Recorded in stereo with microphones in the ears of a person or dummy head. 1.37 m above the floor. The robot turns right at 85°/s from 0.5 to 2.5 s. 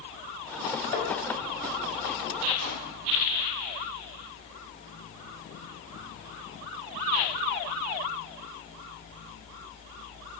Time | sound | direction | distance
0.9 | tapping | 45° left (ahead or behind) | 3.5 m
2.6 | a whoosh | 80° right | 5 m